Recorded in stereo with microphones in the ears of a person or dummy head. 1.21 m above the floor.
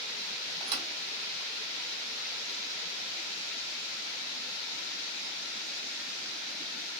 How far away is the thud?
About 1.4 m.